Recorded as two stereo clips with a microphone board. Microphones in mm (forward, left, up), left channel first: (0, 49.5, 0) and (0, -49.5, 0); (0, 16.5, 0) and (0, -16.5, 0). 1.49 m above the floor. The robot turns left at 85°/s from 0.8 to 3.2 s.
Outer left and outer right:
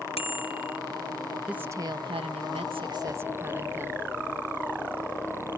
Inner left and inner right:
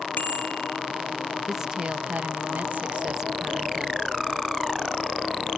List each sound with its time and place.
0.2 s a bicycle bell: 70° left (ahead or behind)
1.5 s a woman speaking: 10° right; by 4.1 s 155° right